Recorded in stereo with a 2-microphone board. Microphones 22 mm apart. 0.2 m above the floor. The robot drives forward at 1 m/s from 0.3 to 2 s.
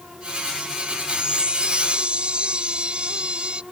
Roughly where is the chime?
Right.